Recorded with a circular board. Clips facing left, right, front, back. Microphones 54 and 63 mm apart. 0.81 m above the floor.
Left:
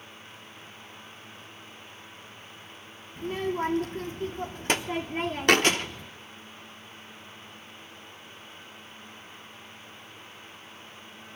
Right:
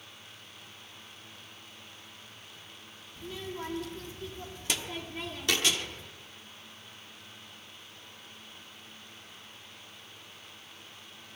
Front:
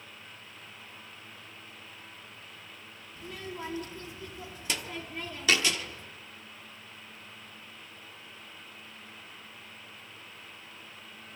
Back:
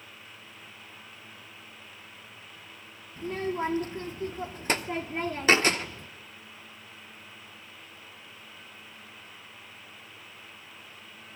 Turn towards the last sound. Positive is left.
turn(degrees=125)